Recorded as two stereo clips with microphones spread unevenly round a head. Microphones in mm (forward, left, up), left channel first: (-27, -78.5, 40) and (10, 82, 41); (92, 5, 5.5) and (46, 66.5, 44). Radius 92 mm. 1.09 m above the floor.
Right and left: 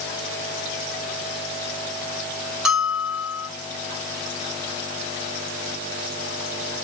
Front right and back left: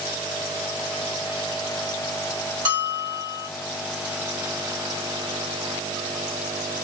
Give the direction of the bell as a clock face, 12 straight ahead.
7 o'clock.